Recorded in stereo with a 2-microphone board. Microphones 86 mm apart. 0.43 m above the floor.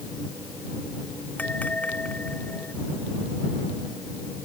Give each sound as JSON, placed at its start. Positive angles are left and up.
{"t": 1.4, "sound": "a bell", "side_deg": 20}